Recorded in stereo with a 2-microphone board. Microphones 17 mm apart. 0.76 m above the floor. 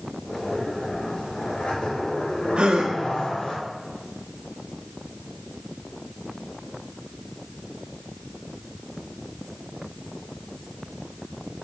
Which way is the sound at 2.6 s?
65° right (ahead or behind).